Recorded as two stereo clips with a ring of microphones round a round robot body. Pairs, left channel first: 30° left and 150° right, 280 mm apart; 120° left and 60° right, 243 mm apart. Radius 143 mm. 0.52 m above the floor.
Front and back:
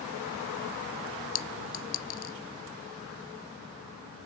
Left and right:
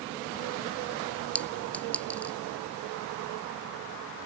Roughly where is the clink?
Ahead left.